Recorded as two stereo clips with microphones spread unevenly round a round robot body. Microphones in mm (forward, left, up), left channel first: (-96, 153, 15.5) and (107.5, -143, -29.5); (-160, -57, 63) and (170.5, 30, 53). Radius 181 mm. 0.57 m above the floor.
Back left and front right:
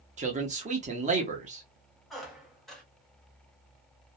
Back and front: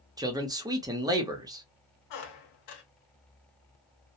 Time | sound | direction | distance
0.2 | a man speaking | 45° right | 0.7 m
2.1 | a squeak | 150° right | 0.7 m